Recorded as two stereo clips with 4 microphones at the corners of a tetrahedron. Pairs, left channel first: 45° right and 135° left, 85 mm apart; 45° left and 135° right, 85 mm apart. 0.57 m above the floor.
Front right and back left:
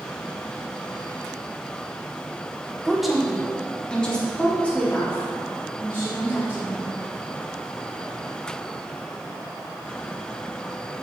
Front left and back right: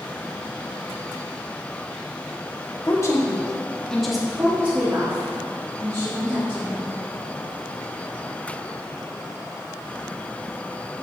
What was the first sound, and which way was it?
A woman speaking, 50° left.